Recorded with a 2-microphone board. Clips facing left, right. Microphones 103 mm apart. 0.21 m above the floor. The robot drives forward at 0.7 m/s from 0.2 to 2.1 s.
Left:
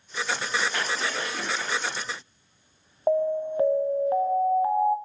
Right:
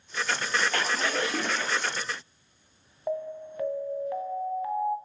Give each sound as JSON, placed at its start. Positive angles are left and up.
{"t": 0.7, "sound": "a splash", "side_deg": -75, "distance_m": 5.0}
{"t": 3.1, "sound": "an alarm", "side_deg": 35, "distance_m": 1.3}